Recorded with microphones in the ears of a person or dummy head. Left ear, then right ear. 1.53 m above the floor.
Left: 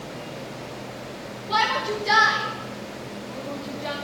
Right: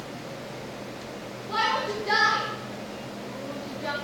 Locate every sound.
1.5 s a shout: 20° left (ahead or behind), 3.5 m; by 4.0 s 5° right (ahead or behind), 1.6 m